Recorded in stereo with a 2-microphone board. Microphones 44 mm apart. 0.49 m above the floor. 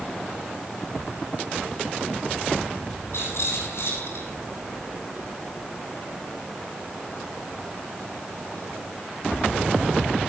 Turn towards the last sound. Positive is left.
turn(degrees=75)  # may be behind; listen again after turning